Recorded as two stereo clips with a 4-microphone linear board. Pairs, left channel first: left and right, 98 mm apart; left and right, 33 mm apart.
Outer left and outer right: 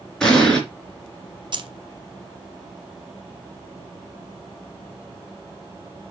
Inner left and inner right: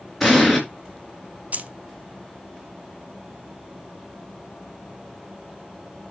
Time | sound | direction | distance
0.2 | an explosion | 5° left (ahead or behind) | 3.5 m
1.5 | keys jangling | 50° right (ahead or behind) | 0.7 m